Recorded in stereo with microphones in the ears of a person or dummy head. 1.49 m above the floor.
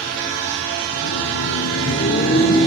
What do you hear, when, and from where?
0.9 s laughter: 65° left (ahead or behind), 0.5 m; by 2.7 s 40° left (ahead or behind), 1.1 m